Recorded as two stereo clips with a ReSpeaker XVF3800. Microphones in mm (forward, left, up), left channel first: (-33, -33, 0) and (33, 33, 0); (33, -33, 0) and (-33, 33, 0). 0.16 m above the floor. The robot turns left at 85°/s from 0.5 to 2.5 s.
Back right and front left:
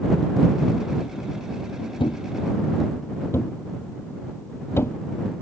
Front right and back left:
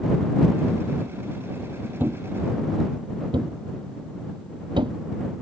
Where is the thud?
155° right; by 5.0 s 165° left.